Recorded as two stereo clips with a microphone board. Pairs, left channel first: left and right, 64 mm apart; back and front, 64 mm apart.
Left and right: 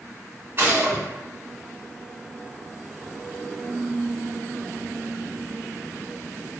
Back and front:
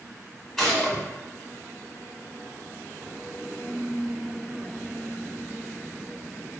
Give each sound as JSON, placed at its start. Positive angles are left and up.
{"t": 0.6, "sound": "a gunshot", "azimuth_deg": -100, "distance_m": 1.7}